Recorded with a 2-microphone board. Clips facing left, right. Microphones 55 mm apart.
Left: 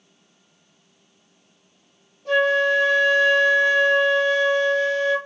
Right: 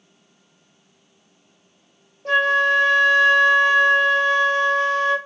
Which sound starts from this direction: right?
A flute, at 2.2 s.